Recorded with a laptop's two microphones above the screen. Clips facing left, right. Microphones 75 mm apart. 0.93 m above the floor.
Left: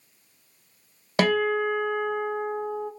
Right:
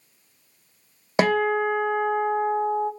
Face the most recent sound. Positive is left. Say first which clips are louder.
# right 2 dB
turn(degrees=-20)  # may be behind; listen again after turning